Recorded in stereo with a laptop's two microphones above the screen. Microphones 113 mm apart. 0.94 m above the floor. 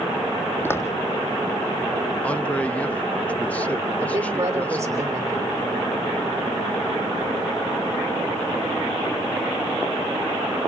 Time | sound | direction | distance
0.7 | footsteps | 20° left (ahead or behind) | 1.5 m
2.2 | a man speaking | 10° left (ahead or behind) | 1.0 m
4.0 | a woman speaking | 25° right (ahead or behind) | 3 m